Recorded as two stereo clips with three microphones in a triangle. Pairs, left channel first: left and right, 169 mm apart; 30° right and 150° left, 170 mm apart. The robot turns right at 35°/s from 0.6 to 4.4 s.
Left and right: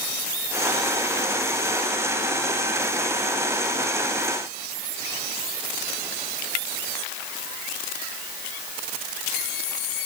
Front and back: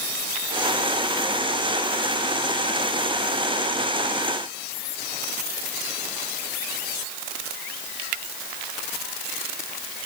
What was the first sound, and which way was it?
Only background noise.